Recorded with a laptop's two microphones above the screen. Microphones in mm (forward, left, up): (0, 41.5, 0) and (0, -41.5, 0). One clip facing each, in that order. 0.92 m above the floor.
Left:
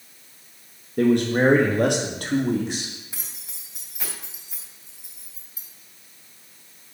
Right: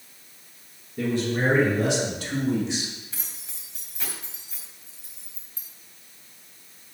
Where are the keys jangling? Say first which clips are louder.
Even; 15° left (ahead or behind), 4 m.